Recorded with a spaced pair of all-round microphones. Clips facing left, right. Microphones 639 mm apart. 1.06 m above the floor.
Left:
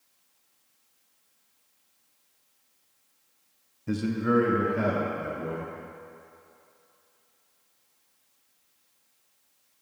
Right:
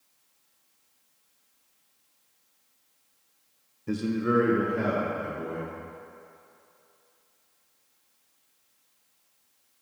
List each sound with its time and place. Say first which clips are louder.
3.9 s a man speaking: even; 15° left (ahead or behind), 0.5 m; by 5.7 s 20° left (ahead or behind), 1.8 m